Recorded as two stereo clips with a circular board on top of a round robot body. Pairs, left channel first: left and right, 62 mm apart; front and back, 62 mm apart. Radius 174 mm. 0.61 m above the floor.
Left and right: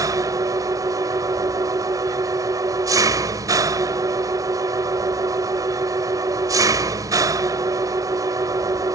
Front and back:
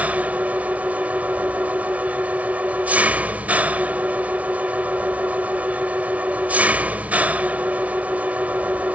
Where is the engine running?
115° right.